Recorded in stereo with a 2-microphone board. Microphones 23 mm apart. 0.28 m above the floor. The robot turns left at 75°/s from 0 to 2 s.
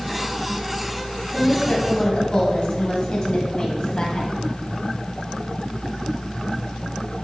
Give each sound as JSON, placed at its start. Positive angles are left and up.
{"t": 1.3, "sound": "a woman speaking", "azimuth_deg": 115, "distance_m": 1.9}